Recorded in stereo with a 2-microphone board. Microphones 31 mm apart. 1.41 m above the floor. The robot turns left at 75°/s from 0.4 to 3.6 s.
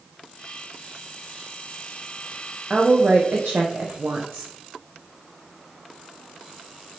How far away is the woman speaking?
About 0.5 m.